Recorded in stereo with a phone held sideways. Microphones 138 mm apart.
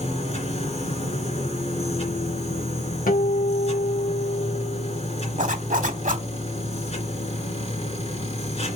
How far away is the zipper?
About 1.4 m.